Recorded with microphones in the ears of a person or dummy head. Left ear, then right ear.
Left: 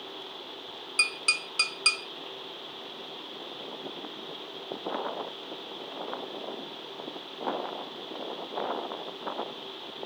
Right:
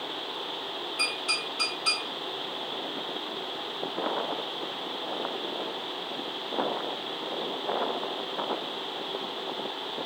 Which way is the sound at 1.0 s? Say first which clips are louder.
Left 3 dB; 60° left (ahead or behind).